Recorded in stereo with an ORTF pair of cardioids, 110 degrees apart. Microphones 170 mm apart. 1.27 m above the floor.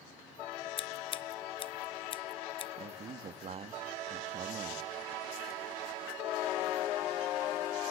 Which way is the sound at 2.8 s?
40° right.